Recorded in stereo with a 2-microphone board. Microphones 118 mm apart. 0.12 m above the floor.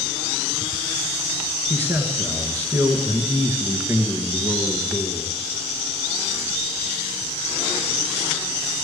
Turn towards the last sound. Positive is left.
turn(degrees=-20)  # may be behind; listen again after turning